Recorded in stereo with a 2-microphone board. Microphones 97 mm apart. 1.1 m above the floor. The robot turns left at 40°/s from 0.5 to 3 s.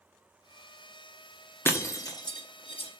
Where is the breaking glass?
25° left (ahead or behind), 1.0 m; by 2.9 s 65° left (ahead or behind), 1.0 m.